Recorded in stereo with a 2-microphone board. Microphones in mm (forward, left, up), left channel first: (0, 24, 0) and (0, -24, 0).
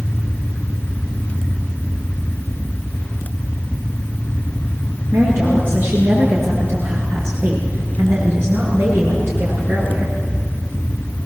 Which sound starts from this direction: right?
A woman speaking, at 5.1 s.